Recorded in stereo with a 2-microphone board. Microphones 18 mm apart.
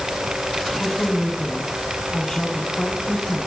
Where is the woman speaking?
50° left (ahead or behind), 8 m.